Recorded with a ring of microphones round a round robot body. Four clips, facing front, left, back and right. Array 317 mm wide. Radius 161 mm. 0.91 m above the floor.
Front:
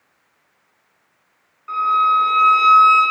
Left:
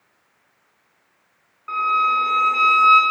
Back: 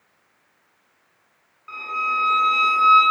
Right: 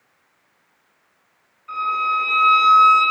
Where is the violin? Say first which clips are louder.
Left 2 dB, front 10 dB; 70° left, 3 m.